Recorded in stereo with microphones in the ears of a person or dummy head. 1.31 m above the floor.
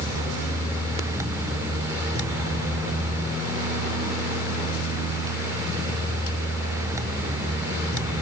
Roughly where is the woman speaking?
I don't hear a woman speaking.